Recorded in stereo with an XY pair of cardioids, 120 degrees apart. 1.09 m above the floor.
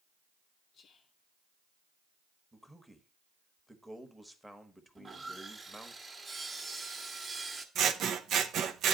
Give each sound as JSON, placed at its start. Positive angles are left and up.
{"t": 0.7, "sound": "whispering", "azimuth_deg": 50, "distance_m": 0.6}
{"t": 2.5, "sound": "a man speaking", "azimuth_deg": 0, "distance_m": 1.1}
{"t": 5.0, "sound": "sawing", "azimuth_deg": -30, "distance_m": 1.2}
{"t": 7.8, "sound": "scissors", "azimuth_deg": -60, "distance_m": 0.6}